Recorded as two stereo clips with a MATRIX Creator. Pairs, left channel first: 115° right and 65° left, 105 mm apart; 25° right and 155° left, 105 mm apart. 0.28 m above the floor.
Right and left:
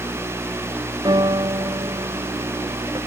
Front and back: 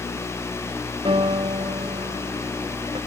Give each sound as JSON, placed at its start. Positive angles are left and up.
{"t": 1.1, "sound": "a piano", "azimuth_deg": 120}